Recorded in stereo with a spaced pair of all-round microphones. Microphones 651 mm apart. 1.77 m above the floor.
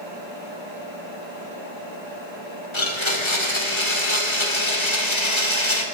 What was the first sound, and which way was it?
A blender, 45° left (ahead or behind).